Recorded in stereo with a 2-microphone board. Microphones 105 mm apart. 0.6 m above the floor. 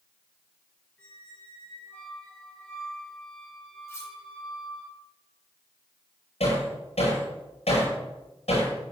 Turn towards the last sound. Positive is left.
turn(degrees=85)